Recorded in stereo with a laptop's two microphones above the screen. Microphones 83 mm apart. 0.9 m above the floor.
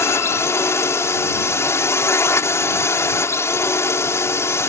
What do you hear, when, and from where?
0.0 s a drone: 30° left (ahead or behind)